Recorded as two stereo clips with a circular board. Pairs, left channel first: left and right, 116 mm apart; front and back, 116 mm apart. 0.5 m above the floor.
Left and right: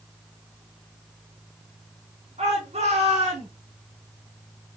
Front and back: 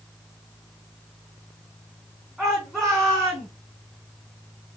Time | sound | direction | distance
2.4 | a shout | 90° right | 4 m